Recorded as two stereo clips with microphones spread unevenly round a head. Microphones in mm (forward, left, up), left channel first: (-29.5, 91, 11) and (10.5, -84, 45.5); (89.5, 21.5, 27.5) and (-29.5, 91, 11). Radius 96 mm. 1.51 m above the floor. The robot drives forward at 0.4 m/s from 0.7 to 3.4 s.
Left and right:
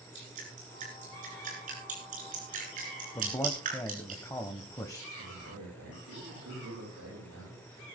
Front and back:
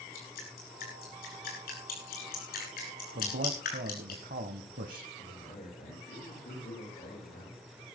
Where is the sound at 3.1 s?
175° left, 1.1 m.